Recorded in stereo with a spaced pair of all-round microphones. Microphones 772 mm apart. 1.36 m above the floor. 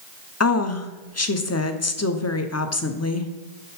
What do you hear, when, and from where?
0.4 s a woman speaking: 25° left (ahead or behind), 0.5 m